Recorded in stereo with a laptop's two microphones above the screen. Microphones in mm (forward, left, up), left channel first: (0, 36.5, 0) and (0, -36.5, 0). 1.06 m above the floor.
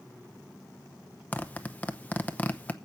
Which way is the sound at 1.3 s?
20° left (ahead or behind).